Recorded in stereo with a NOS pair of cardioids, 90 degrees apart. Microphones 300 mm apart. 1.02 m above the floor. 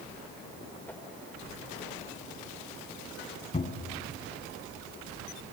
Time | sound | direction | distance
0.9 | a whoosh | 5° left | 2.5 m
3.5 | a cupboard door | 20° left | 3.5 m